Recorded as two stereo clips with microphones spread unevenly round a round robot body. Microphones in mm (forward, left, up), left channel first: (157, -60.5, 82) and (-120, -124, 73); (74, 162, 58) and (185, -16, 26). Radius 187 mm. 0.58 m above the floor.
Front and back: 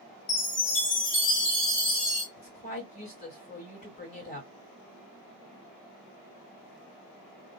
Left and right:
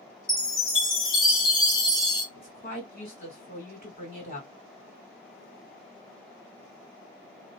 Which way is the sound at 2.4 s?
70° left.